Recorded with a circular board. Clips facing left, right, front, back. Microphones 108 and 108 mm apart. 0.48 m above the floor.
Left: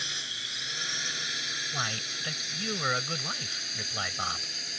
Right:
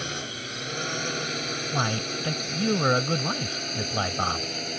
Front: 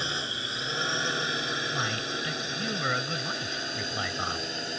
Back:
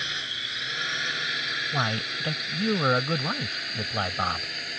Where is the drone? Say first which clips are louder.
Right 9 dB, front 3 dB; 55° right; by 4.8 s 60° right.